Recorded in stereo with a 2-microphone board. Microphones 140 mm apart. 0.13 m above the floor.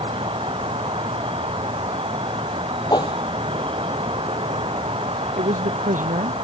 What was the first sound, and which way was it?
An insect, 40° right (ahead or behind).